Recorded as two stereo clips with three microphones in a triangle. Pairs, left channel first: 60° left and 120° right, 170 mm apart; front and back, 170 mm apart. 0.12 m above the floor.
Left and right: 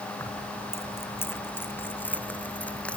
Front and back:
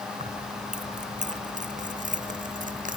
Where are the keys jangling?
135° left; by 3.0 s 145° left.